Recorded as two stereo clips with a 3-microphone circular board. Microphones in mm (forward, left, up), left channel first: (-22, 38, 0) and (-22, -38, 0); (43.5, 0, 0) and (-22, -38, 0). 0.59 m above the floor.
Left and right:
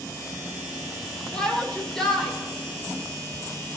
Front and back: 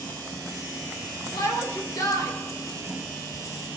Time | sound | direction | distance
1.3 | a shout | 10° left | 2.0 m